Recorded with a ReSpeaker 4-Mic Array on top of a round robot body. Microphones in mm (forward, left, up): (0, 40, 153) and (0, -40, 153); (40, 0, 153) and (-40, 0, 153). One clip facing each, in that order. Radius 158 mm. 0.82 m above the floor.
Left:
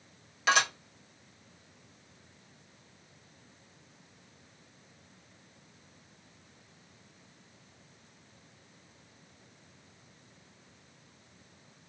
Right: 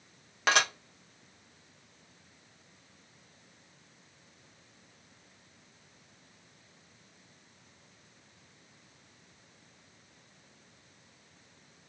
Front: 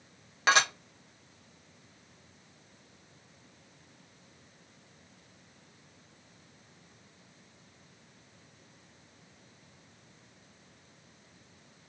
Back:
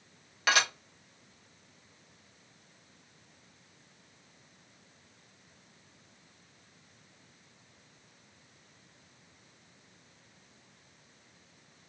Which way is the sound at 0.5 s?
55° right.